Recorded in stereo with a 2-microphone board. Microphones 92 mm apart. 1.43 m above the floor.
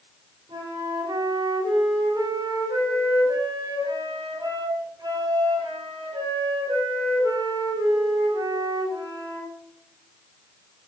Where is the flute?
50° right (ahead or behind), 5 m.